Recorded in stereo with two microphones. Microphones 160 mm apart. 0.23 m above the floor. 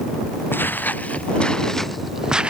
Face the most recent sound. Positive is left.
turn(degrees=-5)  # may be behind; listen again after turning